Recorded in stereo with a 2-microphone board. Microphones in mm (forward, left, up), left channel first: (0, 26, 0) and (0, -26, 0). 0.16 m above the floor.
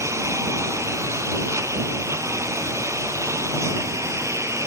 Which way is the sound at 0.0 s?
70° right (ahead or behind).